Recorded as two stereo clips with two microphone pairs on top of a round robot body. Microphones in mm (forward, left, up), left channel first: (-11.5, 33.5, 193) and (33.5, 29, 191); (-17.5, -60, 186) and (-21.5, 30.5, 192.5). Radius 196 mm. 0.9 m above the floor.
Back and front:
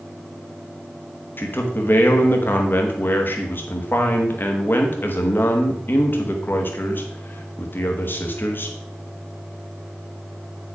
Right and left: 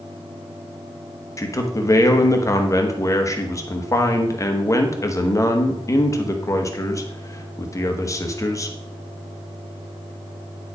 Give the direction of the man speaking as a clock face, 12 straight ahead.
5 o'clock.